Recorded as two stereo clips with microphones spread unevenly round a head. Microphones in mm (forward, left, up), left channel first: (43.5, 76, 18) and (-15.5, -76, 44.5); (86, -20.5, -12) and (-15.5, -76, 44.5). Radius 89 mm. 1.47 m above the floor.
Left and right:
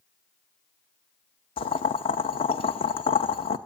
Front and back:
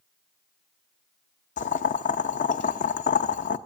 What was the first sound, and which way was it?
Boiling, 15° left.